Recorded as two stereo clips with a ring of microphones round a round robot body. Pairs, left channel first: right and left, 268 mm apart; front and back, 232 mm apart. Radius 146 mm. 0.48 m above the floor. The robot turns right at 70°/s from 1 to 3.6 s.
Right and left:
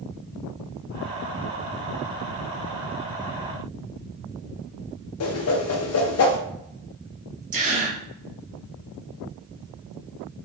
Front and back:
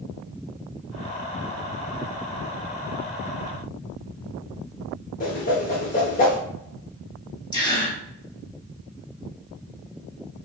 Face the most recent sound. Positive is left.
turn(degrees=60)